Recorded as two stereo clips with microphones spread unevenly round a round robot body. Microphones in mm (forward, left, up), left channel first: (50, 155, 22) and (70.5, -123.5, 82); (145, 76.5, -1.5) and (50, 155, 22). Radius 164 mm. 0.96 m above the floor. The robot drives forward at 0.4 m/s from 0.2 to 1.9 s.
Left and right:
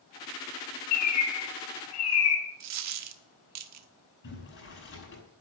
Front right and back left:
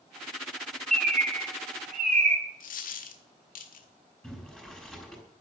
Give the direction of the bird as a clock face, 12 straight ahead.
8 o'clock.